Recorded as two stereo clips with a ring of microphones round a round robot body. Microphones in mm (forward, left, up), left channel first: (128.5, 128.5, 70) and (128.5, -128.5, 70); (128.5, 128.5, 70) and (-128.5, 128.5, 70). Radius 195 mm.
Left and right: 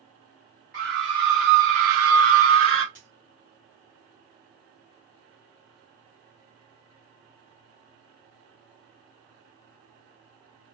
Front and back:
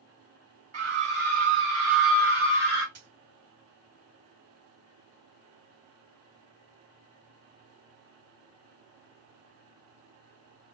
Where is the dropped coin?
150° right, 0.6 m.